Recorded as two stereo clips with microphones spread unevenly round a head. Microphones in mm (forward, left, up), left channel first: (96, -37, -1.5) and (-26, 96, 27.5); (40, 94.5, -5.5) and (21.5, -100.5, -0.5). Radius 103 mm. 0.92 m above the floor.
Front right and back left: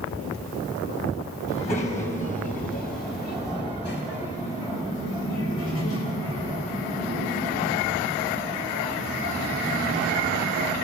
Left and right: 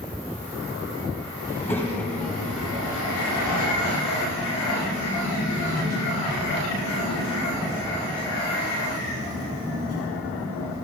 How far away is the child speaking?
About 4.5 m.